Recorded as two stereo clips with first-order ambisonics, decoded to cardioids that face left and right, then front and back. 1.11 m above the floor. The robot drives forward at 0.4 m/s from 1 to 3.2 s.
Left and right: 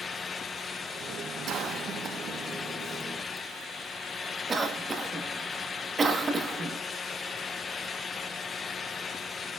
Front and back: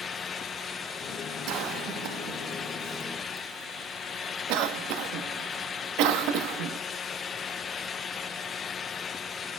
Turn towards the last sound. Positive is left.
turn(degrees=-165)